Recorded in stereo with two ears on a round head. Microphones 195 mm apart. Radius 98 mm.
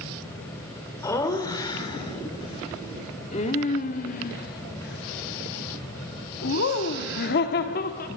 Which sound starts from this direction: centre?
Laughter, at 1.0 s.